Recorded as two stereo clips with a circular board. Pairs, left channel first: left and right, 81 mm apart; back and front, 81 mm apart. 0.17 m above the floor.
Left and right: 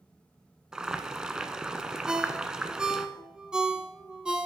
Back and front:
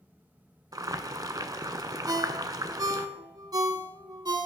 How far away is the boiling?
About 0.5 m.